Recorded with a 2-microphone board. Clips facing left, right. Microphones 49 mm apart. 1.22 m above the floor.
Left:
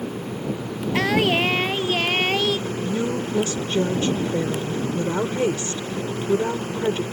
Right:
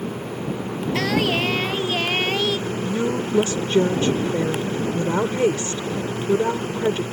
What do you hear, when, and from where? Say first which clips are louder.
0.9 s singing: left 2 dB; 15° left (ahead or behind)
2.7 s a woman speaking: right 1 dB; 30° right (ahead or behind)